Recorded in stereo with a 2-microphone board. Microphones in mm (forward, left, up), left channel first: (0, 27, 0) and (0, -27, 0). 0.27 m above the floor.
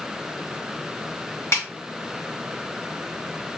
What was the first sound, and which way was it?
A snare drum, 55° left (ahead or behind).